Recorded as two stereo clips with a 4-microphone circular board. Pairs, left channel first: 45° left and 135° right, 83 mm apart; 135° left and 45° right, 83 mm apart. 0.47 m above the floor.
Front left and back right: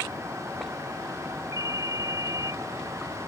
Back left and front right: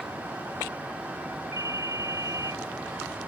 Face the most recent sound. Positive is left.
turn(degrees=-90)